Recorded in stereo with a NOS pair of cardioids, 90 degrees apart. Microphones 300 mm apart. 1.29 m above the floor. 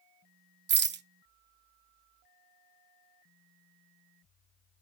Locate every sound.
0.7 s a rattle: 40° right, 0.6 m